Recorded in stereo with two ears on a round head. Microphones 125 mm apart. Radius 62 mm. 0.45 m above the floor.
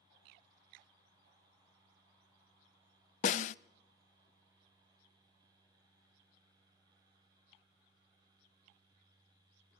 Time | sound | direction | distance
3.2 | a snare drum | 55° left (ahead or behind) | 0.5 m